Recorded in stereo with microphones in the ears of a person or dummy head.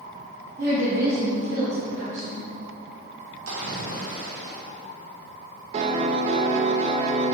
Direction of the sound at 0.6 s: 50° right (ahead or behind).